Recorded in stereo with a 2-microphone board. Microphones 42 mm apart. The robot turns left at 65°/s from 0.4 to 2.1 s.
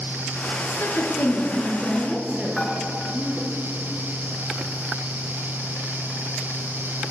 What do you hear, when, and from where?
0.6 s a woman speaking: 80° left, 8.5 m; by 3.5 s 10° right (ahead or behind), 8.5 m
2.6 s dishes clattering: 15° left (ahead or behind), 3 m